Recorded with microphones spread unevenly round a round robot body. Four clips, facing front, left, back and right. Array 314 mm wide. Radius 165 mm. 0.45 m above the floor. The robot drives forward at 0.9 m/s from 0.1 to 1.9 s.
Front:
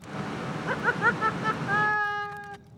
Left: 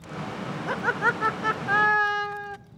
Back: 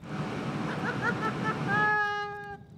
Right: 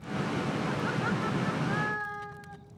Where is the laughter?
40° left, 1.6 m; by 2.6 s 90° left, 1.2 m.